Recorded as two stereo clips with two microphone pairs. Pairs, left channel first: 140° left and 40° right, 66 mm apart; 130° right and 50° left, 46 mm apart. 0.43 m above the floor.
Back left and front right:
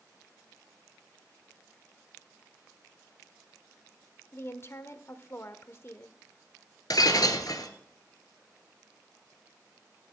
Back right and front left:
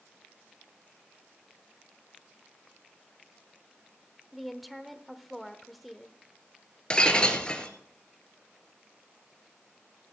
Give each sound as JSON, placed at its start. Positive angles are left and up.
{"t": 4.3, "sound": "a woman speaking", "azimuth_deg": 140, "distance_m": 1.0}
{"t": 6.9, "sound": "breaking glass", "azimuth_deg": 160, "distance_m": 1.5}